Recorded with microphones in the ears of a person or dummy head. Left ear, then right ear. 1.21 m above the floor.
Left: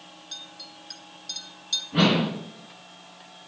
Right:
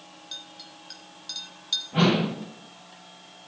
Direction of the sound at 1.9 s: 30° right (ahead or behind).